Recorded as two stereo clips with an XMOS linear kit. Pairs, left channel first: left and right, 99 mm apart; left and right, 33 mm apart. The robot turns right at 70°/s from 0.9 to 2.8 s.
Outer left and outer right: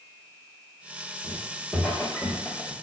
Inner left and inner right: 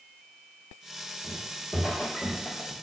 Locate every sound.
1.2 s footsteps: 25° right (ahead or behind), 1.7 m; by 2.7 s 30° left (ahead or behind), 0.8 m